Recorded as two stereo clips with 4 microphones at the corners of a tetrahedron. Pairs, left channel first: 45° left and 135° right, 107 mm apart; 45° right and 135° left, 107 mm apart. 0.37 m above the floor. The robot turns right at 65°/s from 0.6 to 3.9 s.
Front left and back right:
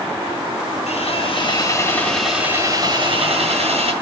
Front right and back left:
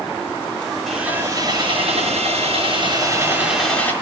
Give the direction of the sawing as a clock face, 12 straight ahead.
11 o'clock.